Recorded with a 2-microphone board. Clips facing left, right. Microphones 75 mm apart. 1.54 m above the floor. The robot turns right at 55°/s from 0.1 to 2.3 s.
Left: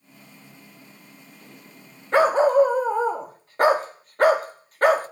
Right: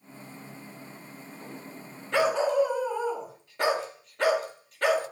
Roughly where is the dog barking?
Left.